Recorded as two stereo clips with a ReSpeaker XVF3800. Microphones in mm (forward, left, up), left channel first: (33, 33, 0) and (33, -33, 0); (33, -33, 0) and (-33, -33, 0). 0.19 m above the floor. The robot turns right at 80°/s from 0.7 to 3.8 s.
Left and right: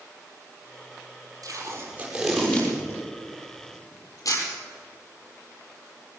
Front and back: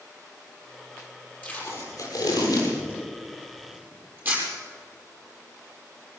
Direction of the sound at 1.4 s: 65° right.